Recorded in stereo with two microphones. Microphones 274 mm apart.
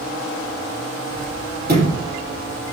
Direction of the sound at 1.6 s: 35° right (ahead or behind).